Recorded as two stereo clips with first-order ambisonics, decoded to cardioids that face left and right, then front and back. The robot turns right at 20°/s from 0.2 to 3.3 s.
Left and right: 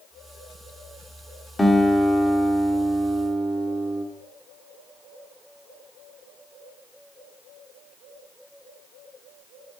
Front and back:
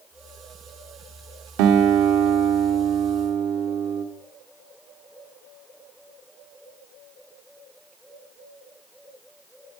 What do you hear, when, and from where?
1.6 s a guitar: 175° left, 1.2 m; by 4.0 s 150° right, 1.2 m